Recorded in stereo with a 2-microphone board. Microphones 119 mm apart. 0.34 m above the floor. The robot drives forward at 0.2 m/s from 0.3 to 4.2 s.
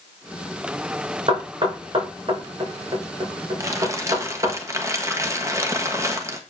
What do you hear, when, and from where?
1.3 s knocking: 45° right (ahead or behind), 3.5 m; by 4.5 s 40° right (ahead or behind), 4 m
3.6 s crumpling: 25° right (ahead or behind), 1.3 m